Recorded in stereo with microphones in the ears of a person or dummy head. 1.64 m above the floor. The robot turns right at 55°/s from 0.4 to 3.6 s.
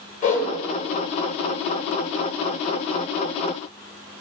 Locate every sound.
0.2 s a whoosh: 45° left (ahead or behind), 0.7 m; by 0.5 s 40° left (ahead or behind), 0.7 m